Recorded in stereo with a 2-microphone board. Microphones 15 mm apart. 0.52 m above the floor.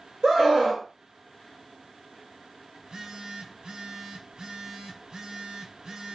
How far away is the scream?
About 2 m.